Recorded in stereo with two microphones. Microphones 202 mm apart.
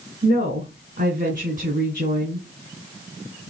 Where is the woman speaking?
40° right (ahead or behind), 3 m.